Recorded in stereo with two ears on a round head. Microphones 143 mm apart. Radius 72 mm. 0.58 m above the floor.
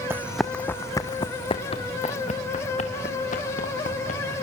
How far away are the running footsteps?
About 1.1 m.